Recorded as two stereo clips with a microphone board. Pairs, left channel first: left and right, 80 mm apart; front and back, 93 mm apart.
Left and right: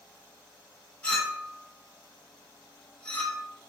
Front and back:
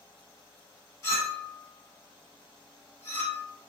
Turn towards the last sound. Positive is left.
turn(degrees=25)